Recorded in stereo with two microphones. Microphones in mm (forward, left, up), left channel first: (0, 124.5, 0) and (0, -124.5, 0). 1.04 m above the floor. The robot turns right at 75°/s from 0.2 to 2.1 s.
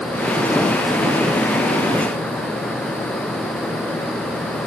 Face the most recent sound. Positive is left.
No sound to turn to.